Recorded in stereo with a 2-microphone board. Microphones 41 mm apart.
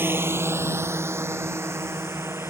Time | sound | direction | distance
0.0 | a drone | 55° right (ahead or behind) | ?